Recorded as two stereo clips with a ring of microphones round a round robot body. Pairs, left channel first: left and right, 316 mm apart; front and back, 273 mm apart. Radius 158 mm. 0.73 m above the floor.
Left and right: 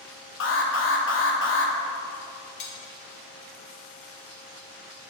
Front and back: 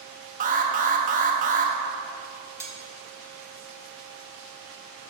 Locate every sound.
0.4 s an alarm: 130° left, 0.9 m
2.6 s cutlery clinking: 100° left, 1.1 m